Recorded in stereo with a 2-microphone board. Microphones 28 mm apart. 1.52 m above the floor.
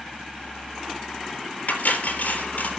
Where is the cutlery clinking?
80° left, 3.5 m.